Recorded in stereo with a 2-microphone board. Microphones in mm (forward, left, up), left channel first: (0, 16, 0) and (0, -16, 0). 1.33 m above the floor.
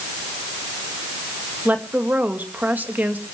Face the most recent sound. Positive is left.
turn(degrees=-70)  # may be behind; listen again after turning